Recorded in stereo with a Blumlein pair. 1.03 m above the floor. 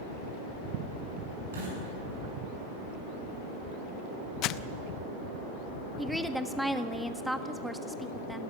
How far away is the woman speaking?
About 1.4 m.